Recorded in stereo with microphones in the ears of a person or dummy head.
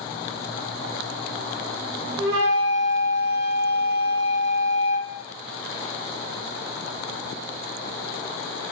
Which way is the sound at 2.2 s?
65° right (ahead or behind).